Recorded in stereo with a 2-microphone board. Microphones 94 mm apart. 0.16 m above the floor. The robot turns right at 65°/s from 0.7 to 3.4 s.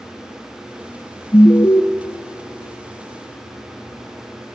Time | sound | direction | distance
1.3 | an alarm | 65° left | 0.9 m